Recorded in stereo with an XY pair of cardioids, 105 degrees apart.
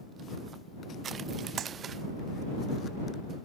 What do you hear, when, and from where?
1.6 s a clap: 60° right